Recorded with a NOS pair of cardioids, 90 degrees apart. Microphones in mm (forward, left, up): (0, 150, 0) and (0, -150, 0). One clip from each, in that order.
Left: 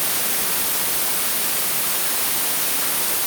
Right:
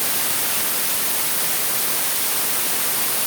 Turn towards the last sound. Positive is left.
No sound to turn to.